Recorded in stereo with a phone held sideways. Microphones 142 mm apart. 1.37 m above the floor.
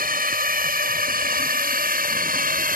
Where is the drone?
80° right; by 2.8 s 75° right (ahead or behind).